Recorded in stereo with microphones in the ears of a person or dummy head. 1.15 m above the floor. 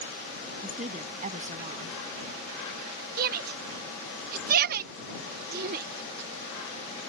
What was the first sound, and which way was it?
A woman speaking, 35° right (ahead or behind).